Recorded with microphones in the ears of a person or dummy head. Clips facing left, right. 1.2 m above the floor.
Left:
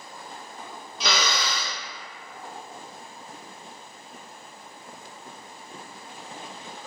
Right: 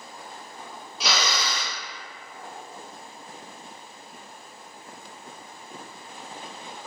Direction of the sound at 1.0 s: 5° right (ahead or behind).